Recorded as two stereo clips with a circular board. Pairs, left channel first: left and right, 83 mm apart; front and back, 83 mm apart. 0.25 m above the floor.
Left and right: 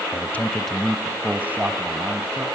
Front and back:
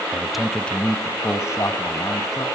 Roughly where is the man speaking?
Left.